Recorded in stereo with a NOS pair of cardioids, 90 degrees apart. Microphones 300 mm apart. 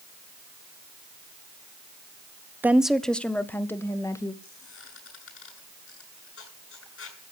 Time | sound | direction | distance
2.6 | a woman speaking | 5° right | 0.8 m
4.4 | a squeak | 50° left | 8.5 m